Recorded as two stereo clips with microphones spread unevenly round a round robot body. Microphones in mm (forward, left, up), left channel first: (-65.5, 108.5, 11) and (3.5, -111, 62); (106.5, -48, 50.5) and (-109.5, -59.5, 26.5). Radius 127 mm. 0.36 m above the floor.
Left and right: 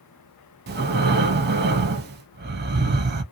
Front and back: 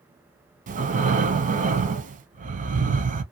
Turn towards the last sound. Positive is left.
turn(degrees=-120)